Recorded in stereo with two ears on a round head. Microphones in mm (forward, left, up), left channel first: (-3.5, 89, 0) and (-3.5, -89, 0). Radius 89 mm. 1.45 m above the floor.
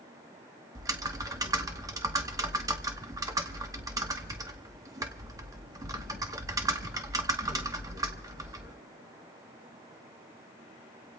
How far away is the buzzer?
No buzzer in this recording.